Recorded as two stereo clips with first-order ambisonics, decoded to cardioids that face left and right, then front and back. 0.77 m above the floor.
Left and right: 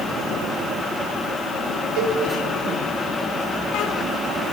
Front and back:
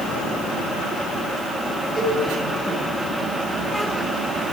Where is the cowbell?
105° right, 3 m.